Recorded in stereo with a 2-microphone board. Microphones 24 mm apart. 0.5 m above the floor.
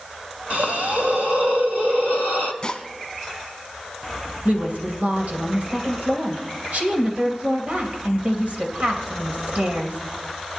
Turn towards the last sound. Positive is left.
turn(degrees=-65)  # may be behind; listen again after turning